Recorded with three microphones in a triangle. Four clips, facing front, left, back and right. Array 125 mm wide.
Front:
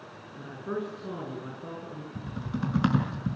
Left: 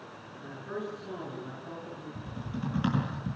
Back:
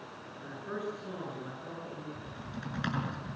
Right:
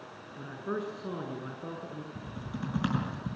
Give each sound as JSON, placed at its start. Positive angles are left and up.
{"t": 0.4, "sound": "a man speaking", "azimuth_deg": -65, "distance_m": 8.5}
{"t": 2.1, "sound": "typing on a keyboard", "azimuth_deg": -5, "distance_m": 7.0}